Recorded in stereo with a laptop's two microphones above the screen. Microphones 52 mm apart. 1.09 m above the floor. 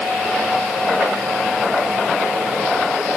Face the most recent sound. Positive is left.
No sound to turn to.